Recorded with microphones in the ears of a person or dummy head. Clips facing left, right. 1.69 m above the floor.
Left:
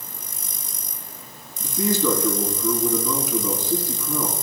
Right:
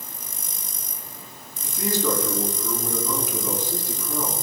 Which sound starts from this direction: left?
A man speaking, at 1.6 s.